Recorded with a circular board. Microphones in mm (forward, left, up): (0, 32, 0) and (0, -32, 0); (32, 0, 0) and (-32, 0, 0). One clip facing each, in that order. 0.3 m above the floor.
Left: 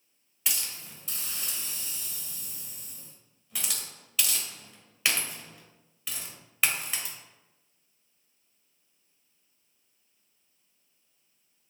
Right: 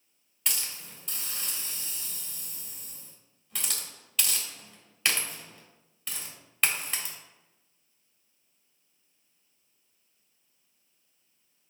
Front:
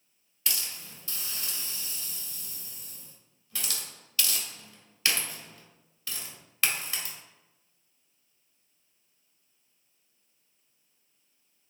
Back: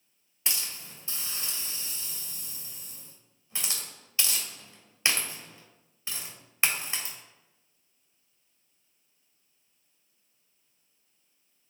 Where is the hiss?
175° left, 1.4 m.